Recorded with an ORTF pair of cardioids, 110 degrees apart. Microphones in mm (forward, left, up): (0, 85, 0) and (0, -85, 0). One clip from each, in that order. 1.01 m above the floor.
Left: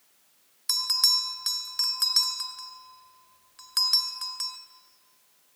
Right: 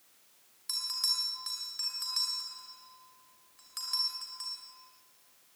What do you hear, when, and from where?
0.7 s a bell: 60° left, 2.5 m